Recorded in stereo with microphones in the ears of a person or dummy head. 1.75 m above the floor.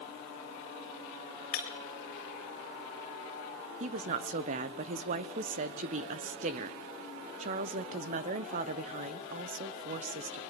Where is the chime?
I don't hear a chime.